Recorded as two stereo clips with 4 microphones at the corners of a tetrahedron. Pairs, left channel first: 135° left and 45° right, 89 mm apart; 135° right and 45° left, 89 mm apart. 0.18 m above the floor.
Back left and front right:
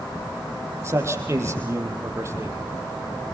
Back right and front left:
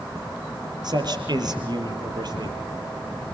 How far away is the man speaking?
About 4.5 m.